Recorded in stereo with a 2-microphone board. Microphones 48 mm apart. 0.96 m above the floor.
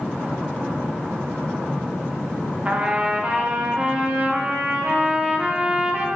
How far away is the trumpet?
About 0.6 m.